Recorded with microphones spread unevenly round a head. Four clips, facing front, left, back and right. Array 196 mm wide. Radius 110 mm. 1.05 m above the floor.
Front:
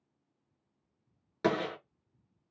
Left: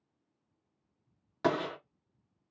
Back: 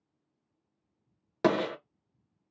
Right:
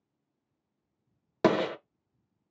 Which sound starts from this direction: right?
A gunshot, at 1.4 s.